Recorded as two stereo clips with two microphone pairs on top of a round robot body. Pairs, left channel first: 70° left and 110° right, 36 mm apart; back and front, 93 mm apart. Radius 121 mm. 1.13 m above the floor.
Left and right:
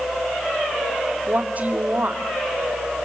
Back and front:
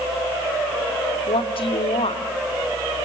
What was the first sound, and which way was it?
A woman speaking, 155° right.